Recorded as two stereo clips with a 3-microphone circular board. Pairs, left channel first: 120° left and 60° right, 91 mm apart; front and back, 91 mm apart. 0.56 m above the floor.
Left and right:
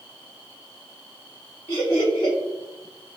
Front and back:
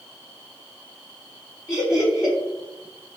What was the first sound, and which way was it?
Laughter, 65° left.